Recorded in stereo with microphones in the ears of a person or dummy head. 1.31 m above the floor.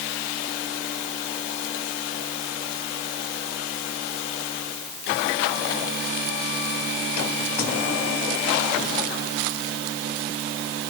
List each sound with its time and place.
Only background noise.